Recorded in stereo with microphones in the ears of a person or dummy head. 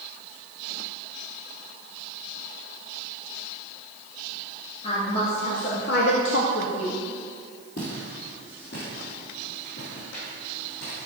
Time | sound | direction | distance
4.8 | a woman speaking | 35° left (ahead or behind) | 2.5 m
7.8 | footsteps | 60° left (ahead or behind) | 3 m